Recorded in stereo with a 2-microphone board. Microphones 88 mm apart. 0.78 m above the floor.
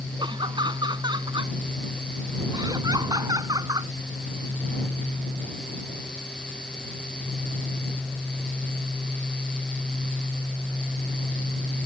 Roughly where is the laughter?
Right.